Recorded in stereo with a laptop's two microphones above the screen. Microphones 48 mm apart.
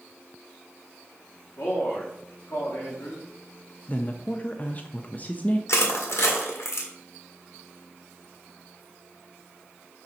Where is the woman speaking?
30° left (ahead or behind), 0.5 m.